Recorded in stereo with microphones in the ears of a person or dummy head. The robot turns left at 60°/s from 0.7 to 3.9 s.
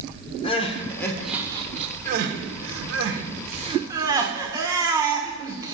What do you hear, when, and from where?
0.4 s crying: 30° left (ahead or behind), 0.7 m; by 5.8 s 20° right (ahead or behind), 0.7 m